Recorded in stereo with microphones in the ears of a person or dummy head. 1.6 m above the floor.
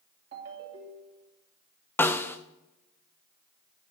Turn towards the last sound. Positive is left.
turn(degrees=15)  # may be behind; listen again after turning